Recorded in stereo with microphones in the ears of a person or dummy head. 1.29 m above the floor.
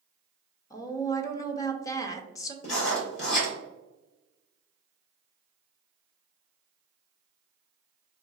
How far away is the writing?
About 1.9 m.